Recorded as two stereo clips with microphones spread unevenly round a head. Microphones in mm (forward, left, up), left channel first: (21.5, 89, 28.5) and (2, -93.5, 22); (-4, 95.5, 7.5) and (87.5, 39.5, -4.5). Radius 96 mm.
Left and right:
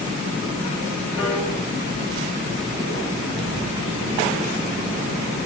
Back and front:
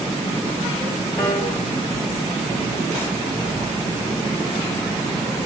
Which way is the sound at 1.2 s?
80° left.